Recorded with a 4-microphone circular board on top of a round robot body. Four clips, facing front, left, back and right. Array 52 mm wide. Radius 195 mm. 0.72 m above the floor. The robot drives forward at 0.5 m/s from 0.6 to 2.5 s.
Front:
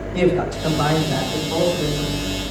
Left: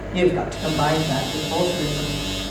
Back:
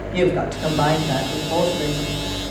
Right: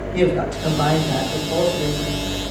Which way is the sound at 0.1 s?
170° left.